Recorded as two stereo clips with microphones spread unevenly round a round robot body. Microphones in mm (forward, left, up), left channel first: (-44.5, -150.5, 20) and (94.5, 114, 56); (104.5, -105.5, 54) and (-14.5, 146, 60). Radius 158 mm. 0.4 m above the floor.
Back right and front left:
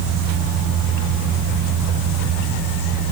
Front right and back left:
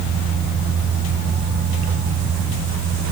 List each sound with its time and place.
Only background noise.